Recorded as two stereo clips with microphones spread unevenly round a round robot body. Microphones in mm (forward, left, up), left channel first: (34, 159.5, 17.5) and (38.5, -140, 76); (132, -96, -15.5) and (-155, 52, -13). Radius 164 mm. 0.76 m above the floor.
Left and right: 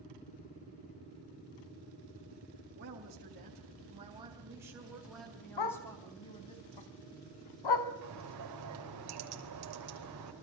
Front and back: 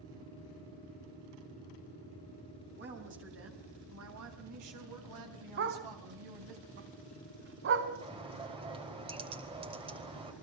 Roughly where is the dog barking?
Left.